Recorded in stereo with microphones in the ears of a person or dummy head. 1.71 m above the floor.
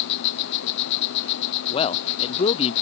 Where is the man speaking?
25° left (ahead or behind).